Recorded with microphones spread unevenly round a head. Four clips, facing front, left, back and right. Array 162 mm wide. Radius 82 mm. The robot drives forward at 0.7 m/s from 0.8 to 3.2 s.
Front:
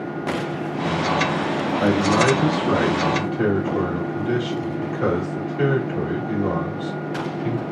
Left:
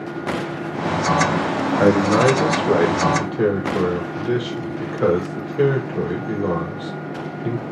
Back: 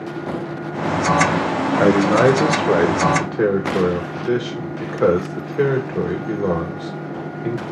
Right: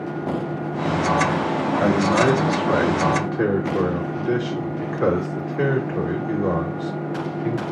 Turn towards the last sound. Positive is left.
turn(degrees=170)